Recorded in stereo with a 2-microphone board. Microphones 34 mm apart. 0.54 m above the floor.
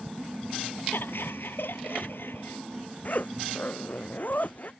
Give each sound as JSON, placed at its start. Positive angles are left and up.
{"t": 0.9, "sound": "laughter", "side_deg": 85}
{"t": 3.0, "sound": "a zipper", "side_deg": 50}